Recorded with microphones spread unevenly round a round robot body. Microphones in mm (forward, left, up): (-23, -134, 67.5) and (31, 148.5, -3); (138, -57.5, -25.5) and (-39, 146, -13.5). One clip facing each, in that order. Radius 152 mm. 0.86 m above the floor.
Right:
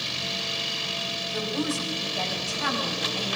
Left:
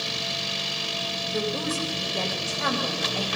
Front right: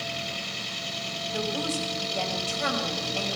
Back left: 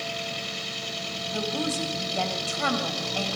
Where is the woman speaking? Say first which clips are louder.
Even, back left 1 dB; 140° left, 6 m; by 3.3 s 110° left, 6 m.